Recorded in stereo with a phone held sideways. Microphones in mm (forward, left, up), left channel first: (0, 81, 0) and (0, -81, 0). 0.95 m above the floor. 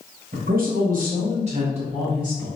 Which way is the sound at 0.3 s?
55° right (ahead or behind).